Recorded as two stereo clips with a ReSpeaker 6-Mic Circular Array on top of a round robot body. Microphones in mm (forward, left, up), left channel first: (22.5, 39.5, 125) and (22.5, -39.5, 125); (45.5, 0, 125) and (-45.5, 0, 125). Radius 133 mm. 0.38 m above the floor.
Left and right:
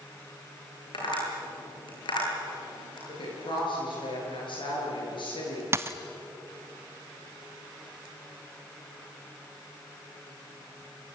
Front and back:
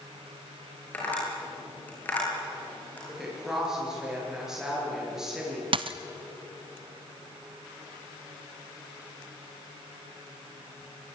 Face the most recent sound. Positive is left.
turn(degrees=-150)